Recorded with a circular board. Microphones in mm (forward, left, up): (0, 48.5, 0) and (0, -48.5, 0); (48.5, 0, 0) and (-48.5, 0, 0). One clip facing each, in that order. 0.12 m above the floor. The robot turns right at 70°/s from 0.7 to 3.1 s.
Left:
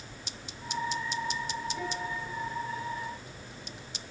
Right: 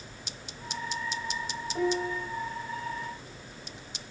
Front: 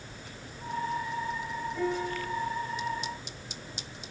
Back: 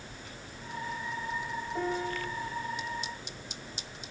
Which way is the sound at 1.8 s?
135° right.